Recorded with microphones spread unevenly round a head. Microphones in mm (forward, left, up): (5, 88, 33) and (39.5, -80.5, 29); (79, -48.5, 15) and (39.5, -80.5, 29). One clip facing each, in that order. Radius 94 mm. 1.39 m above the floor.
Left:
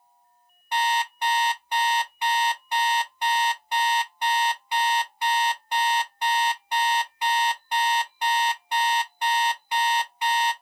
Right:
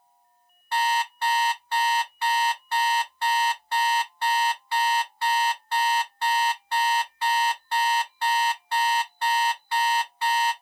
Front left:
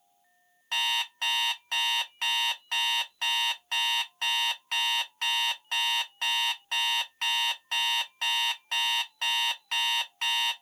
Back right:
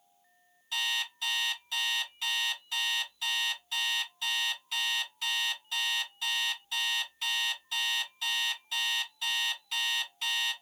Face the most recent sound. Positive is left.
turn(degrees=40)